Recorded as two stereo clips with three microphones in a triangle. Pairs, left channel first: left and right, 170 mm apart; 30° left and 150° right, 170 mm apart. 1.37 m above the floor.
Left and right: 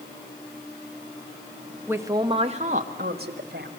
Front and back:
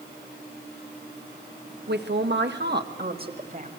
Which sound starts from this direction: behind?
A man speaking, at 1.9 s.